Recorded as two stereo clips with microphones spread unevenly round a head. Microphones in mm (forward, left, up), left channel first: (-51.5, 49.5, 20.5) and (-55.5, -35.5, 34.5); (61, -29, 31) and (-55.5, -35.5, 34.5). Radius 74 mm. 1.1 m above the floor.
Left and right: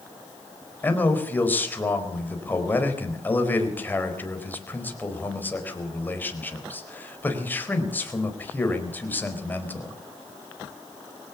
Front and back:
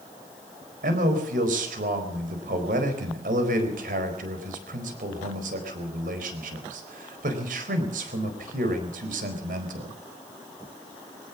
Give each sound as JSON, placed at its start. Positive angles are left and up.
{"t": 0.8, "sound": "a man speaking", "azimuth_deg": 155, "distance_m": 4.5}